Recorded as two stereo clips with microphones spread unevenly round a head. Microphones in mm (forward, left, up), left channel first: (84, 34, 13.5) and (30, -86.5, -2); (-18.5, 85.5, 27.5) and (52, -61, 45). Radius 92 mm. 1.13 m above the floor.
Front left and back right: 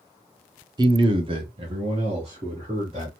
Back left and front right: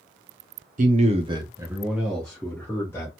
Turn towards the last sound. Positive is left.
turn(degrees=-170)